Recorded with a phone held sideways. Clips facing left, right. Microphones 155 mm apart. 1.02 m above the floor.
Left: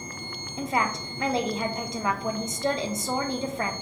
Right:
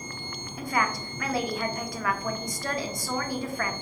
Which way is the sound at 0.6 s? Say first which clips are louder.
Left 1 dB; 25° left (ahead or behind).